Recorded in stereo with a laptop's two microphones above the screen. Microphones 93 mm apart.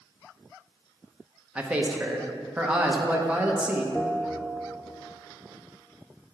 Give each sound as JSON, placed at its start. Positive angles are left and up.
{"t": 1.6, "sound": "a man speaking", "side_deg": -10, "distance_m": 0.7}
{"t": 4.0, "sound": "a bell", "side_deg": 15, "distance_m": 0.6}